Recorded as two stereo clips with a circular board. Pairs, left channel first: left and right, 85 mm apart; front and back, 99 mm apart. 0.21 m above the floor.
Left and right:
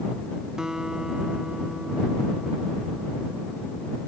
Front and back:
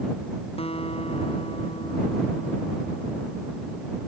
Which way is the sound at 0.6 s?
10° right.